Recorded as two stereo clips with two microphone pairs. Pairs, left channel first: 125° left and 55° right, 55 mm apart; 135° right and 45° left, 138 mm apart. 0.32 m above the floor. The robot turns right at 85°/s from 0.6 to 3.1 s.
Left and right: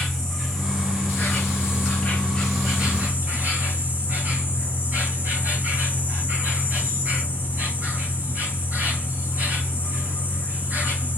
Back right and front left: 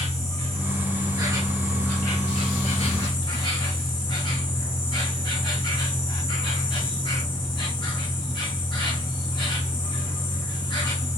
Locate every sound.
0.0 s an insect: 45° left, 2.5 m; by 11.2 s 100° right, 2.5 m